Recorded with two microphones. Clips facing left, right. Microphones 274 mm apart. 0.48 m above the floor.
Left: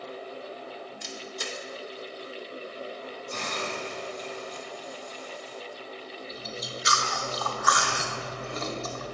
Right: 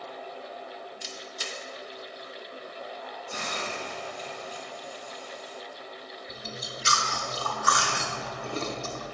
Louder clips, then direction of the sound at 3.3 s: Left 2 dB; 10° right (ahead or behind).